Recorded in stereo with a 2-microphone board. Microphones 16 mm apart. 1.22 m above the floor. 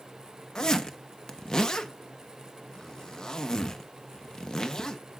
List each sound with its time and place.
0.6 s a zipper: 45° left (ahead or behind), 0.8 m